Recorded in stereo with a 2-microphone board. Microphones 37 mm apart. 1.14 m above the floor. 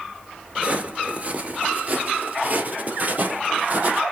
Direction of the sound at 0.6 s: 35° right (ahead or behind).